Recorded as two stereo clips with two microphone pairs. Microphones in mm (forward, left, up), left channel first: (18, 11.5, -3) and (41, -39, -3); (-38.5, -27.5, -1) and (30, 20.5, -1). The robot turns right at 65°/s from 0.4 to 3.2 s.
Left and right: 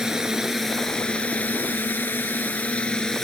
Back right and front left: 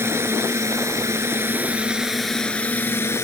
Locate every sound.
0.0 s a drone: 10° left; by 3.2 s 170° right